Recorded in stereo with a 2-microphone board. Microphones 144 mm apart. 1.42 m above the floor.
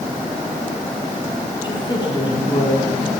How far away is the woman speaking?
About 4.5 m.